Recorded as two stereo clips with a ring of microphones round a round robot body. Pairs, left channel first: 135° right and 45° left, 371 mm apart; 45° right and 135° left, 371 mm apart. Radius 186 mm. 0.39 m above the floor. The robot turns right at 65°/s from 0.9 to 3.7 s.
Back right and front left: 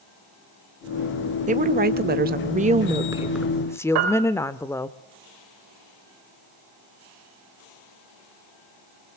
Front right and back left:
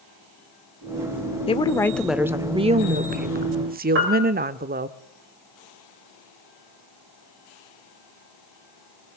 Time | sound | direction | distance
1.5 | a woman speaking | 5° left | 1.1 m
4.0 | a piano | 75° left | 3.5 m